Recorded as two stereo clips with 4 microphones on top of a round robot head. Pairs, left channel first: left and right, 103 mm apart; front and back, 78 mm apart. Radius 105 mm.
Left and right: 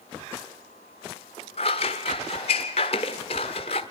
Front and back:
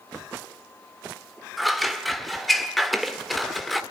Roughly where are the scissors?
Left.